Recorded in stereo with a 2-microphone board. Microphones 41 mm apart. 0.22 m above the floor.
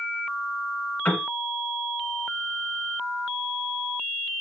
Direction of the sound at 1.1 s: 50° left (ahead or behind).